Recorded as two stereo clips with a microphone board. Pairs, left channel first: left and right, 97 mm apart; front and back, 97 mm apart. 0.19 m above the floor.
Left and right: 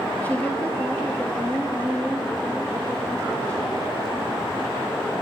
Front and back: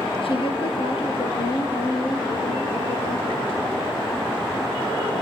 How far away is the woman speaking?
About 4 m.